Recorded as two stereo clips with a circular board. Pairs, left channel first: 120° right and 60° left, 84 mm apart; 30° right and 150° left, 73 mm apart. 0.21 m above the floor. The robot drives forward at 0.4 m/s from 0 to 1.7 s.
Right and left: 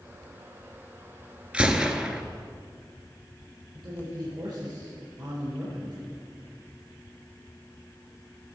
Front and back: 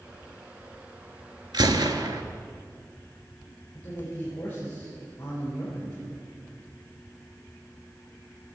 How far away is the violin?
No violin in this recording.